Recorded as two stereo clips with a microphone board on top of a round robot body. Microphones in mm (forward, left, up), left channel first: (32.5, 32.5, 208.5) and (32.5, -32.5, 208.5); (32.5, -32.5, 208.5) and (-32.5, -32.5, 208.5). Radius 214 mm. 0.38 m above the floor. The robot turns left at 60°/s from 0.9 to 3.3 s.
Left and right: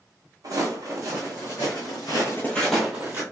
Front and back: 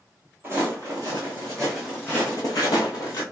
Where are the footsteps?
125° right, 0.9 m; by 3.2 s 35° right, 1.1 m.